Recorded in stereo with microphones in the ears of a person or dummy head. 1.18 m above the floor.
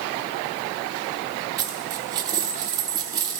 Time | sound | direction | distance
1.6 | a dropped coin | 20° right (ahead or behind) | 0.8 m